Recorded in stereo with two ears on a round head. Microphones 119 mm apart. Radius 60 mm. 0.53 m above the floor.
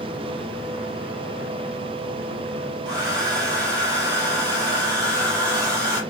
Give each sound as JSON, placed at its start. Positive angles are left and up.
{"t": 2.9, "sound": "a hair dryer", "side_deg": -30, "distance_m": 3.5}